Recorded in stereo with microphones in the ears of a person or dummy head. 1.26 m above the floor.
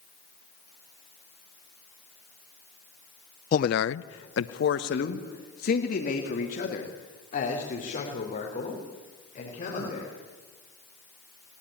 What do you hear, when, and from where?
3.5 s a man speaking: 45° left (ahead or behind), 0.6 m; by 10.1 s 40° left (ahead or behind), 5.5 m